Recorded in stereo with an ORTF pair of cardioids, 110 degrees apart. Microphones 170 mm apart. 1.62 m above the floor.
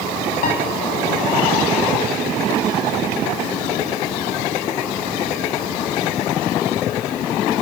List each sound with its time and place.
0.4 s a piano: 55° left, 7.5 m